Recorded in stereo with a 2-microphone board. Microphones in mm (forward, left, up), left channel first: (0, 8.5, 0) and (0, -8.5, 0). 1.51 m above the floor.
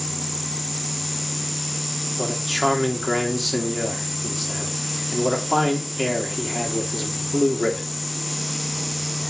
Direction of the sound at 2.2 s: 5° right (ahead or behind).